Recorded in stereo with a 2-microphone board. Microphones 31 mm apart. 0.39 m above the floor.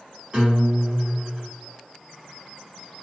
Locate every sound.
0.3 s a guitar: 35° right (ahead or behind), 1.7 m